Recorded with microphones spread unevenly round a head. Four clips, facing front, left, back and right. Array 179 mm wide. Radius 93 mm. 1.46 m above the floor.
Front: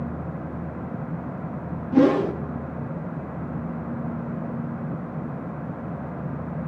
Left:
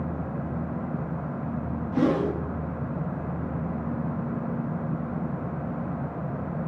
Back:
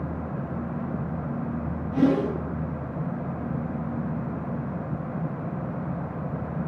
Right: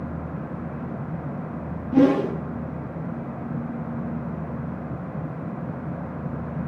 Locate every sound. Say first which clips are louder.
1.9 s a whoosh: right 6 dB, front 4 dB; 20° right, 1.2 m